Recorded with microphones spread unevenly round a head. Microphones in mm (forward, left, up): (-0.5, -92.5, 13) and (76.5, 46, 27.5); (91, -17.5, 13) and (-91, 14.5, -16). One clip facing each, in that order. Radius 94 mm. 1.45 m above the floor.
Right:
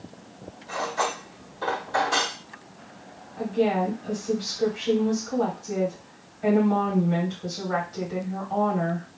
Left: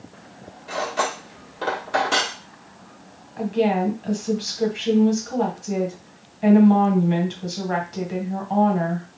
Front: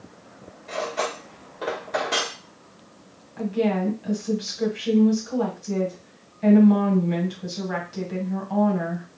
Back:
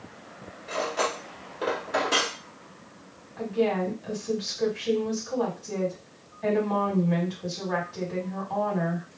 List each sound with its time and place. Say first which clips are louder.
0.7 s cutlery clinking: left 3 dB, front 1 dB; 80° left, 1.0 m
3.4 s a woman speaking: left 3 dB, front 2 dB; 40° left, 1.4 m